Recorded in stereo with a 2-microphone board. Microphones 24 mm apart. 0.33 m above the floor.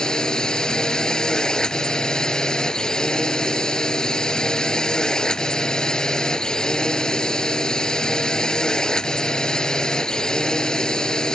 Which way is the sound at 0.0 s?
30° left (ahead or behind).